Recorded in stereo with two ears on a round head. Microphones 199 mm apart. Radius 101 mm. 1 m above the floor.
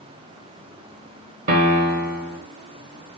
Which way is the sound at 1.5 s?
35° right (ahead or behind).